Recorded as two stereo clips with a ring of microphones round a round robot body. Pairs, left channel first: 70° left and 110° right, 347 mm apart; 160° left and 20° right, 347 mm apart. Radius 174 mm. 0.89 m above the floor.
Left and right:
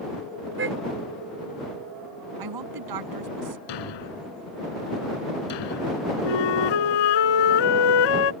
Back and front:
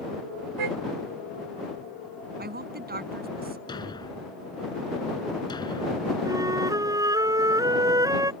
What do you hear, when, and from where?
0.6 s a car horn: 55° right
2.4 s a woman speaking: 85° right
3.7 s a thud: 80° left
6.2 s a flute: 60° left